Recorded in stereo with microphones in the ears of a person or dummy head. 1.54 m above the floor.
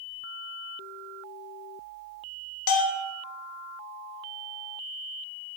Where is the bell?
70° left (ahead or behind), 0.9 m.